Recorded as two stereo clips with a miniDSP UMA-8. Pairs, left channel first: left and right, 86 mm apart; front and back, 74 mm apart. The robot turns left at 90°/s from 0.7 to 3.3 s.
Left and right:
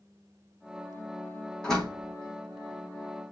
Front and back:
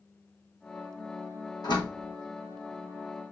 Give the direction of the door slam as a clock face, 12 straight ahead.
12 o'clock.